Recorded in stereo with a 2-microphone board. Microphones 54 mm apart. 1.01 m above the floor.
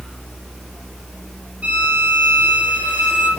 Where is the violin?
25° right (ahead or behind), 3 m.